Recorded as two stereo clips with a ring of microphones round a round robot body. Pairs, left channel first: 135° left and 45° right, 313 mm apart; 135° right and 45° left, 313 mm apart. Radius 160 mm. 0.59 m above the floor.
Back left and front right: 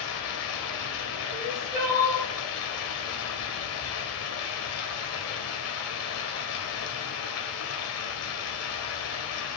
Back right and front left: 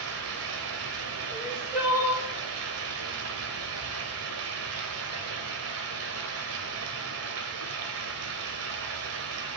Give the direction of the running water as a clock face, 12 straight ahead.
9 o'clock.